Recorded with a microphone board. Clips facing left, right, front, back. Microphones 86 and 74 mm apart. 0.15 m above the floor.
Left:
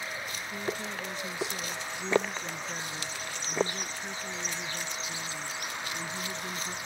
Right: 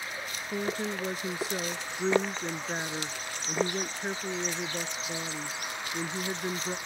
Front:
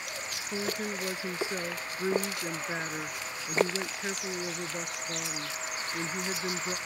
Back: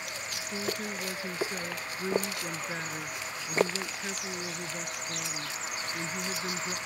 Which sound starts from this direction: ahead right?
A woman speaking, at 0.5 s.